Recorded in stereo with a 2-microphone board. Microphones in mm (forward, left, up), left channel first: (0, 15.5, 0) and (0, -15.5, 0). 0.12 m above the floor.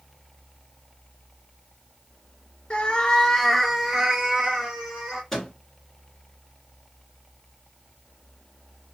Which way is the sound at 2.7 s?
40° left (ahead or behind).